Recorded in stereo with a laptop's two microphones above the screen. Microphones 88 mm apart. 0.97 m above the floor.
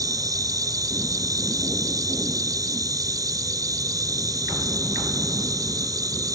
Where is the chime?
No chime in this recording.